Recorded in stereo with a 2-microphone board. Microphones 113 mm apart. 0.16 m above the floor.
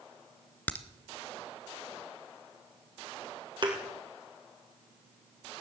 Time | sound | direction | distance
0.7 | a crack | 15° left (ahead or behind) | 1.0 m
3.6 | a thud | 40° right (ahead or behind) | 2.5 m